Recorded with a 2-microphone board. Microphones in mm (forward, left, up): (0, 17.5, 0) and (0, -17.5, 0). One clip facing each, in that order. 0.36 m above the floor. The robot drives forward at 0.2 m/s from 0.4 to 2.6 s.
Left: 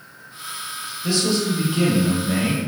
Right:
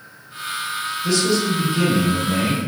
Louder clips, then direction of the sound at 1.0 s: Right 1 dB; 20° left (ahead or behind).